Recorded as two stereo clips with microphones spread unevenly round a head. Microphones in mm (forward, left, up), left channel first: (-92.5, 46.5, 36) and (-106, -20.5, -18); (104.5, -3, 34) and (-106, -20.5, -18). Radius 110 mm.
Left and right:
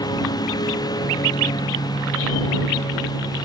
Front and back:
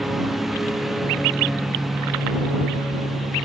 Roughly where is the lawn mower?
Left.